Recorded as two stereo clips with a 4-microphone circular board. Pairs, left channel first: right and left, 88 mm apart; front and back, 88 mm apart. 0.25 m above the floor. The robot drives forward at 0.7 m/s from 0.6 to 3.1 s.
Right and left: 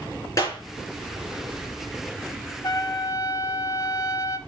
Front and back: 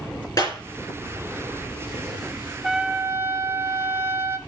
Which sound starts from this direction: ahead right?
A clap, at 0.4 s.